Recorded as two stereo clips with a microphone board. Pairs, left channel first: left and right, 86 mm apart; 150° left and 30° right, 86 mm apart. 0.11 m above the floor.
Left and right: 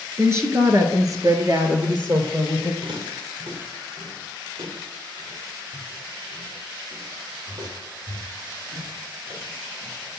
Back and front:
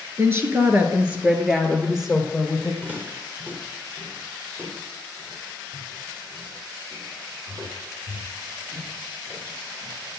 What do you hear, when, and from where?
0.2 s a woman speaking: 60° right, 1.6 m; by 2.7 s 125° right, 2.5 m
2.8 s footsteps: 105° right, 3.5 m; by 9.9 s 80° right, 7 m